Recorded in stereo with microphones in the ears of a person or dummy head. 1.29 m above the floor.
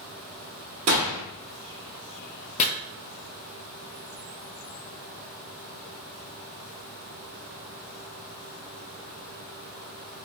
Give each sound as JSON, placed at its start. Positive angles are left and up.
{"t": 0.9, "sound": "a gunshot", "side_deg": -35, "distance_m": 0.8}
{"t": 2.6, "sound": "chopping", "side_deg": 35, "distance_m": 0.7}